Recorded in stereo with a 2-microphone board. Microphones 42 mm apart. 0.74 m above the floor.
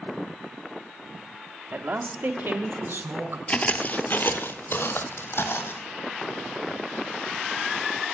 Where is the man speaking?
55° right (ahead or behind), 1.3 m; by 3.4 s 70° right (ahead or behind), 3 m.